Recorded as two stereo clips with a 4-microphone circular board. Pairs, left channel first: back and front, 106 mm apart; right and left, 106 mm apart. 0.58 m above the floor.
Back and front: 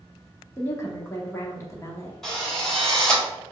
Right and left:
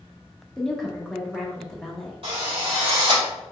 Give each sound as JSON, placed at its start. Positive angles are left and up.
{"t": 0.6, "sound": "a woman speaking", "azimuth_deg": -170, "distance_m": 0.8}
{"t": 2.2, "sound": "a drill", "azimuth_deg": 95, "distance_m": 1.7}